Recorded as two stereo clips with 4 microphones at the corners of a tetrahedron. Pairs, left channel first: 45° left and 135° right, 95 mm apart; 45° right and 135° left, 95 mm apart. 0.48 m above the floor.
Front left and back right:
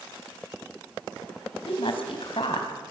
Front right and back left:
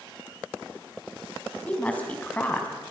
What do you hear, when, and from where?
1.7 s a woman speaking: 30° left, 4 m